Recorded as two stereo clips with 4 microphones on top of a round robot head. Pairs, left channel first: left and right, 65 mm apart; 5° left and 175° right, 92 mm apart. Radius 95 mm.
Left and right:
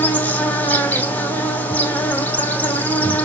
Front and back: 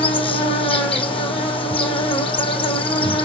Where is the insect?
25° left, 4.5 m.